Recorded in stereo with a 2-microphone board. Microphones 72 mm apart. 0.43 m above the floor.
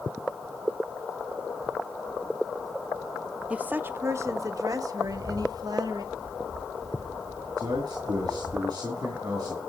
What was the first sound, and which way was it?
A woman speaking, 20° right (ahead or behind).